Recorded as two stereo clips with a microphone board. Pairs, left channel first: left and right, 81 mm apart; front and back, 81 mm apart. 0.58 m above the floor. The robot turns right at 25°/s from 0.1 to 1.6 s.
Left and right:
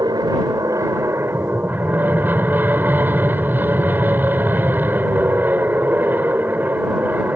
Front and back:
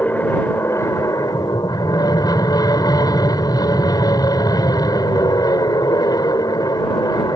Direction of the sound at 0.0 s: 65° right.